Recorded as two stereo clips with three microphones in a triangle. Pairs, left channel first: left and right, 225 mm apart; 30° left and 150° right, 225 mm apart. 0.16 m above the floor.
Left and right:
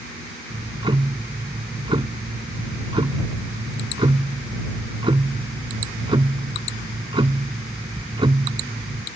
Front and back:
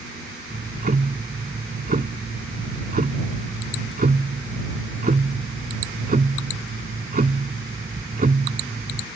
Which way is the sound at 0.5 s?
145° right.